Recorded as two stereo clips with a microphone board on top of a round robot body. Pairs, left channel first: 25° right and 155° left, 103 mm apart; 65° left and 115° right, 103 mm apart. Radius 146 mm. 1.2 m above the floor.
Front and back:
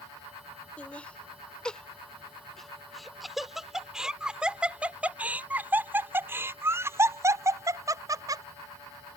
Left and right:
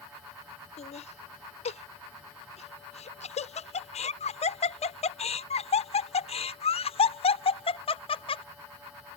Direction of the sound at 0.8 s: 55° left.